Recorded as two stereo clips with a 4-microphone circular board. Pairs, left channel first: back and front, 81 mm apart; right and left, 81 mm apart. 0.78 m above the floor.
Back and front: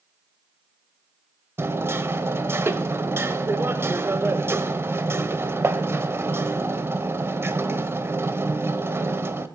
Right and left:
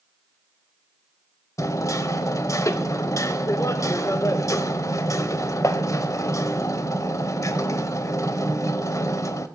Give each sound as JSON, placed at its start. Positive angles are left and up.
{"t": 1.6, "sound": "hammering", "azimuth_deg": -50, "distance_m": 0.7}